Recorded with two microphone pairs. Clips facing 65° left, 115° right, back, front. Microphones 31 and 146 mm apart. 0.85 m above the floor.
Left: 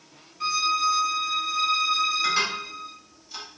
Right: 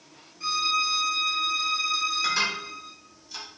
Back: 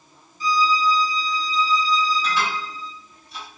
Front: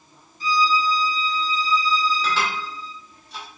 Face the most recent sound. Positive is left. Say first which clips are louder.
# left 1 dB, even
turn(degrees=-10)